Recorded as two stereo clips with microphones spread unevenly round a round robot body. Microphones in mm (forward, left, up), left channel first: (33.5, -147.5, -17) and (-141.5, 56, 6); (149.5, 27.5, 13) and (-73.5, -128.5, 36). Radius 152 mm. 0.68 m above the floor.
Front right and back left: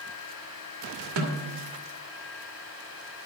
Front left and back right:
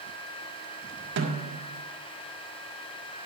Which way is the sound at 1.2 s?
160° left.